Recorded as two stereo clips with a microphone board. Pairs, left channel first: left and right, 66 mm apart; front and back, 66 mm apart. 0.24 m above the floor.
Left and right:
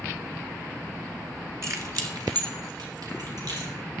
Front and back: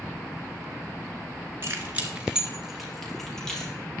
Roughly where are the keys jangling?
Behind right.